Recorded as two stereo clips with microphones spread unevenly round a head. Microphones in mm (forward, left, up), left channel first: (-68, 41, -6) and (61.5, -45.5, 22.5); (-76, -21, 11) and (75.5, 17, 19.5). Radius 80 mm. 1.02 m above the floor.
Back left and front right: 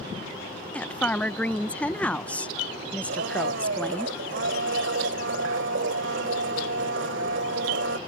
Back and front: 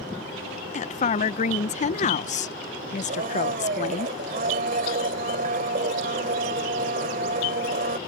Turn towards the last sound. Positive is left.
turn(degrees=-25)